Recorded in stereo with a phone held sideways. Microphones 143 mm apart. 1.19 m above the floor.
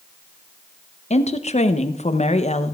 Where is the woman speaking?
50° left (ahead or behind), 0.7 m.